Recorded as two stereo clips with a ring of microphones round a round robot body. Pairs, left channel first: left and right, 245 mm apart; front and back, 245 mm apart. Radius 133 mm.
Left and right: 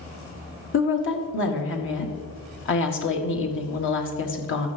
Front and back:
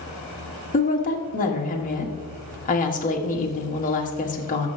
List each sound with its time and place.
0.7 s a woman speaking: 55° left, 1.7 m